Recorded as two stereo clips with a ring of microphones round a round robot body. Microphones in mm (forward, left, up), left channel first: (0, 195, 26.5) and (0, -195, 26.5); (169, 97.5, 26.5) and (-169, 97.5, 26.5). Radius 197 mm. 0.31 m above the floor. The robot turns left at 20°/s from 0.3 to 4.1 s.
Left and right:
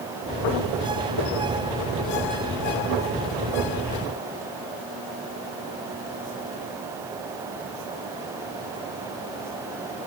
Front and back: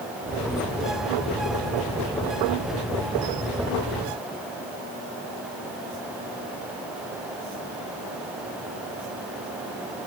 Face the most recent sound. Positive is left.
No sound to turn to.